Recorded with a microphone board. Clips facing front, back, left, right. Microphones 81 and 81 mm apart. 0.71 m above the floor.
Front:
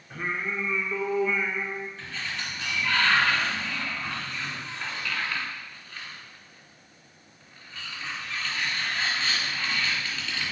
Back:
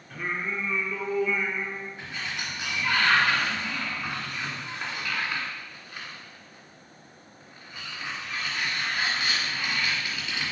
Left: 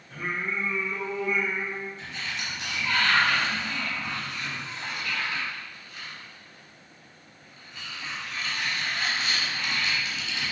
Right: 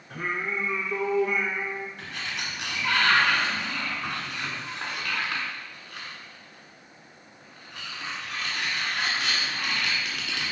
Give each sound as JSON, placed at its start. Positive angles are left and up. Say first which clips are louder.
{"t": 0.1, "sound": "singing", "louder": "even, right 1 dB", "azimuth_deg": -70, "distance_m": 1.2}
{"t": 2.0, "sound": "a sliding door", "louder": "even, right 1 dB", "azimuth_deg": -105, "distance_m": 1.9}